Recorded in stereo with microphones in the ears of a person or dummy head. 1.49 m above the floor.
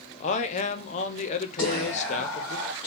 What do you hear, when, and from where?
0.2 s a man speaking: 40° left (ahead or behind), 0.7 m
1.6 s whispering: 10° left (ahead or behind), 1.1 m